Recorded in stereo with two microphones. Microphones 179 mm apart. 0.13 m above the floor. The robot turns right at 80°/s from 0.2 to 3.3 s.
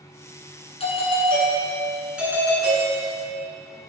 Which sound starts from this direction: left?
A doorbell, at 0.8 s.